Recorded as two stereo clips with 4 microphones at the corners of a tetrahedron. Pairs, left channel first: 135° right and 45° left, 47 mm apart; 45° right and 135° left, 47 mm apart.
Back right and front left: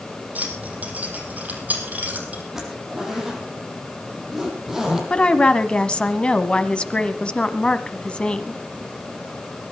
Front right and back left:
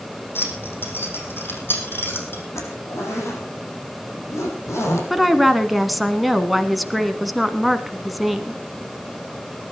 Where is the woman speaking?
140° right, 1.3 m.